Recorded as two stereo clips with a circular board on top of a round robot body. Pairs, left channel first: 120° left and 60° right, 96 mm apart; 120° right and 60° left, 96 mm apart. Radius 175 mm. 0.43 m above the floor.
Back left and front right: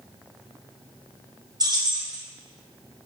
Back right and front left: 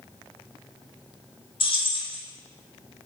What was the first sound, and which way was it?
Keys jangling, 105° right.